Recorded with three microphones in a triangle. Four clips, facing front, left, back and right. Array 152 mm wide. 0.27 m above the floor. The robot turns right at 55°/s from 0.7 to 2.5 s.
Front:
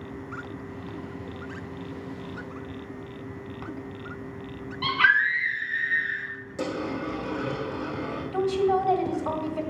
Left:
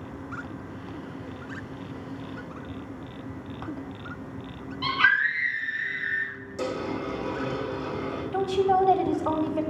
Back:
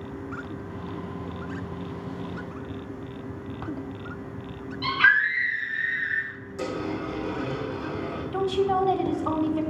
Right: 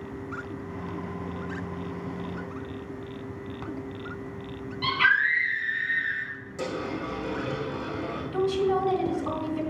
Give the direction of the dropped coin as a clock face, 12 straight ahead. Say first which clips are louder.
Left 2 dB, even; 12 o'clock.